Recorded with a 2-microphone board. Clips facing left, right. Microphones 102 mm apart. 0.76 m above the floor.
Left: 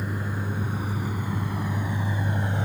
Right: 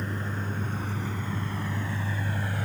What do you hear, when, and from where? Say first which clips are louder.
0.0 s a vehicle: left 2 dB; 10° left (ahead or behind); by 2.7 s 25° left (ahead or behind)